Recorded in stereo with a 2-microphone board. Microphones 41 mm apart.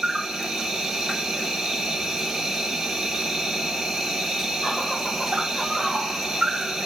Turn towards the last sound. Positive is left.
turn(degrees=-5)  # may be behind; listen again after turning